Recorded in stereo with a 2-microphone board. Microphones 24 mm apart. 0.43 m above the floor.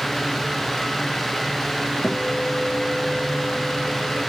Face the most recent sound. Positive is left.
turn(degrees=80)